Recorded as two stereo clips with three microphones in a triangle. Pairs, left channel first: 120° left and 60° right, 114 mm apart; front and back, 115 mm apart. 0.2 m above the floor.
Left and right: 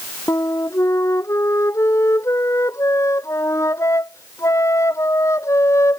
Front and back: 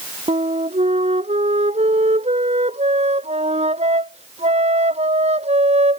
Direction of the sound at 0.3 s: 175° right.